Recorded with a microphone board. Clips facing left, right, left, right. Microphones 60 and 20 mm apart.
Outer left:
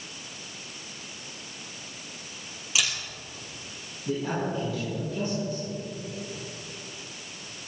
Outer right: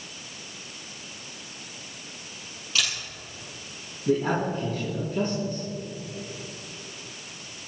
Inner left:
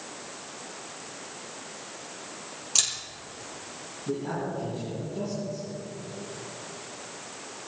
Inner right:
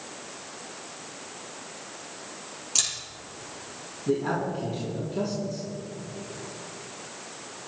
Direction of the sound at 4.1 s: 50° right (ahead or behind).